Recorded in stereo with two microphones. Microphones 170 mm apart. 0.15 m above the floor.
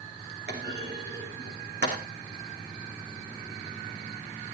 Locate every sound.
0.5 s a clunk: 85° right, 3.5 m